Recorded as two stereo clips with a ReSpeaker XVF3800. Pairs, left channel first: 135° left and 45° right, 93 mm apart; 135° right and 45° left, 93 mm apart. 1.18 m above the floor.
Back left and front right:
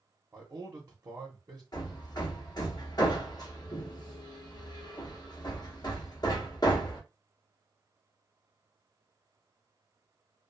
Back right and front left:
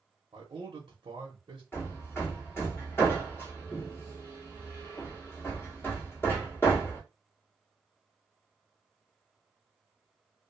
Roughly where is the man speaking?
Ahead.